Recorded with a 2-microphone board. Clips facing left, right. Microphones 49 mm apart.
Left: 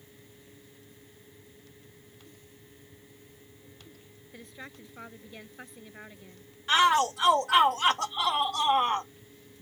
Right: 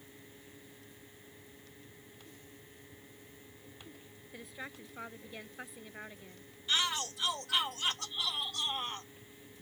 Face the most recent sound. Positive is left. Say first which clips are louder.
# left 12 dB
turn(degrees=75)  # may be behind; listen again after turning